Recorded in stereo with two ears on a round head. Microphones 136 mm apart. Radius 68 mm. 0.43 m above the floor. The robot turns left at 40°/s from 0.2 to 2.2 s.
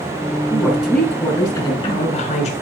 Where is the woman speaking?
165° right, 5.5 m; by 2.5 s 125° left, 5.5 m.